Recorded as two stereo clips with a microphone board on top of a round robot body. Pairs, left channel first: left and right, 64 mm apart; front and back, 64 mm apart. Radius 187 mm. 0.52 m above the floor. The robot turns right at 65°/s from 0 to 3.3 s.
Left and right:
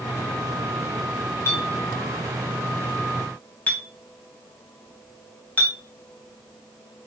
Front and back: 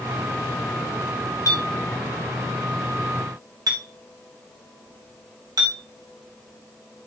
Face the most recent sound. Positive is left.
turn(degrees=155)